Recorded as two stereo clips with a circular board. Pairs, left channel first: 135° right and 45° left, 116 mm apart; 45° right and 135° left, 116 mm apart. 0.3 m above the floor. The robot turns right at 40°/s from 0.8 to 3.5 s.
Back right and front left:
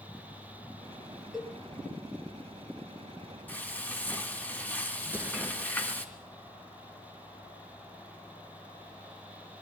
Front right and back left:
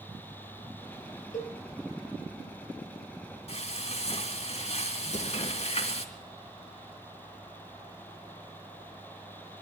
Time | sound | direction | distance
1.3 | a cowbell | 40° right | 4 m
3.5 | frying | 65° right | 2.5 m
5.0 | an explosion | 30° right | 2 m